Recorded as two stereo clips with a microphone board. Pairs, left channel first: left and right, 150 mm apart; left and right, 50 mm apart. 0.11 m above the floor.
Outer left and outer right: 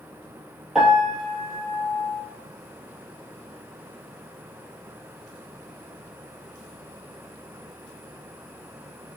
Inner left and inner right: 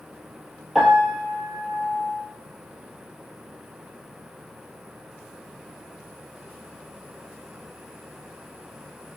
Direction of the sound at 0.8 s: Centre (ahead or behind).